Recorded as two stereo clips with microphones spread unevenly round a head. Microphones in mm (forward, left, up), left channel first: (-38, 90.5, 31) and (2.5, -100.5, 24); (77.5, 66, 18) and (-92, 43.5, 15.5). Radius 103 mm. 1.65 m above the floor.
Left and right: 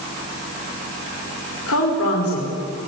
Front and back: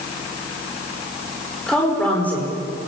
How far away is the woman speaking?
About 5.5 m.